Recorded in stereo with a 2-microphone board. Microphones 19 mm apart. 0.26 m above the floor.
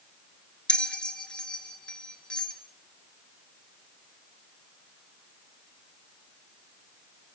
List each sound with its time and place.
0.7 s a bell: 45° left (ahead or behind), 3.5 m